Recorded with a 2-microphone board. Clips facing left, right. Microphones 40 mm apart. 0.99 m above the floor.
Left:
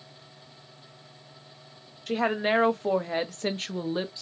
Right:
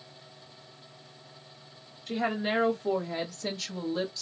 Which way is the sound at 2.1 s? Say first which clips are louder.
Left 4 dB; 65° left (ahead or behind).